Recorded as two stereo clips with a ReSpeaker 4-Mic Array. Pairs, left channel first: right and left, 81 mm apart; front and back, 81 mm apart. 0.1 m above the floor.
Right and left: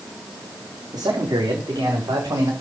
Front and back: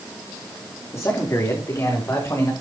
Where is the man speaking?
55° left, 7.5 m; by 2.5 s 50° left, 7.5 m.